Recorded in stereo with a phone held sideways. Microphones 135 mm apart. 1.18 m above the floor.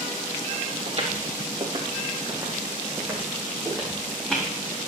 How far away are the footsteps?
About 3 m.